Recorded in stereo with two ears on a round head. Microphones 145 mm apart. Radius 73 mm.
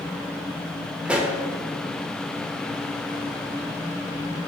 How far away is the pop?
About 0.5 m.